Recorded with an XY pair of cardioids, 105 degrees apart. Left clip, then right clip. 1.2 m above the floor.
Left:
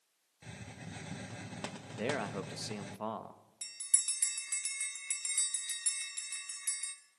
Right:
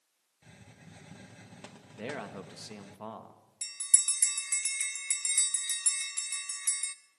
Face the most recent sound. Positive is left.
turn(degrees=-40)